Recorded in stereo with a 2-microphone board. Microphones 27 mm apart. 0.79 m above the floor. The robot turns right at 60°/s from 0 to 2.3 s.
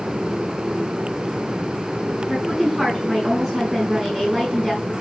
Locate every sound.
2.3 s a woman speaking: 10° right (ahead or behind), 7.5 m